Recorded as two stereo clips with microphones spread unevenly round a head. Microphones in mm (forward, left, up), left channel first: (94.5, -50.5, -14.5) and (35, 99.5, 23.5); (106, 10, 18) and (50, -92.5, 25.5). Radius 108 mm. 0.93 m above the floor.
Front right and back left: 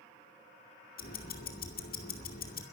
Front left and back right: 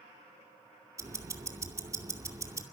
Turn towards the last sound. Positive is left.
turn(degrees=-55)